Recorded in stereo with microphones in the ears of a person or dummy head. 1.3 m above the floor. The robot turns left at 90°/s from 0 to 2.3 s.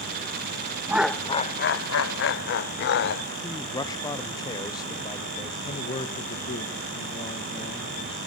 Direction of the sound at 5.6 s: 35° left (ahead or behind).